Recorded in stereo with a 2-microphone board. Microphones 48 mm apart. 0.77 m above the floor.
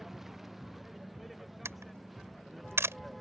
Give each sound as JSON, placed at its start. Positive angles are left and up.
{"t": 0.0, "sound": "a vehicle", "side_deg": -5}
{"t": 1.6, "sound": "a camera shutter", "side_deg": -75}